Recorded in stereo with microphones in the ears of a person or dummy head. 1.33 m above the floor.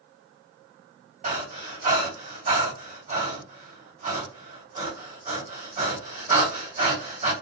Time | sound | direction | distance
1.2 | breathing | 40° right (ahead or behind) | 1.6 m